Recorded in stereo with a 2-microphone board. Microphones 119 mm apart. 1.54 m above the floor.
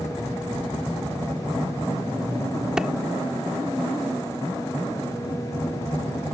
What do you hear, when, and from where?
2.8 s a clap: 5° right (ahead or behind)